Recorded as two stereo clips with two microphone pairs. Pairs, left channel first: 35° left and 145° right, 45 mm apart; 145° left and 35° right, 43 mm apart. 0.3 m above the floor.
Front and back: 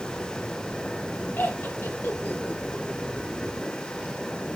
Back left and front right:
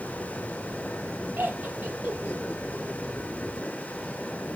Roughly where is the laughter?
Ahead.